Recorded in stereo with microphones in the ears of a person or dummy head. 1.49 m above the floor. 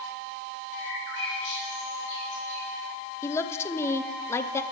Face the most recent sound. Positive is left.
turn(degrees=20)  # may be behind; listen again after turning